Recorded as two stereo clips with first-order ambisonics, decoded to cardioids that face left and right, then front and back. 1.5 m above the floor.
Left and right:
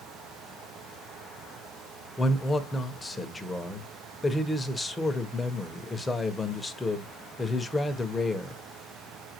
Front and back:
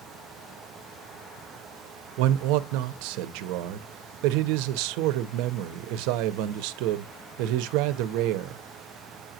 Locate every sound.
2.2 s a man speaking: 175° left, 1.0 m